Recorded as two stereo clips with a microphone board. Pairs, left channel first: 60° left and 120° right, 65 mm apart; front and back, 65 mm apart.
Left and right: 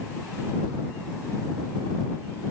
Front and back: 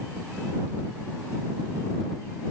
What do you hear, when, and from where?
Only background noise.